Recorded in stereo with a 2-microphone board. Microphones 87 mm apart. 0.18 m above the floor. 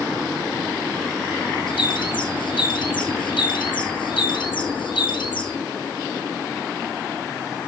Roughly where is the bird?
Left.